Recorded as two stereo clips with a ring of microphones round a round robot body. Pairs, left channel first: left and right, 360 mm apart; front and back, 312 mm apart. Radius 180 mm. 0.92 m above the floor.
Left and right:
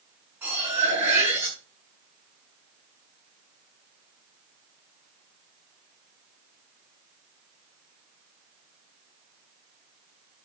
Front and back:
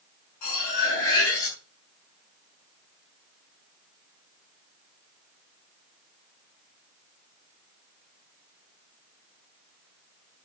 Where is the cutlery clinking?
5° right, 7 m.